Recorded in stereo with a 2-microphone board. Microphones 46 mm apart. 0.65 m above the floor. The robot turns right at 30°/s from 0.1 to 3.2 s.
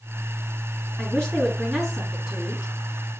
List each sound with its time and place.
1.0 s a woman speaking: 145° left, 5.5 m; by 2.7 s 160° right, 5.5 m